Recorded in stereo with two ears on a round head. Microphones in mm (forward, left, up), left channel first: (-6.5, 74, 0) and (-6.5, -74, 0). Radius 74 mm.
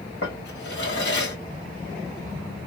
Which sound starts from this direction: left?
A drawer, at 0.2 s.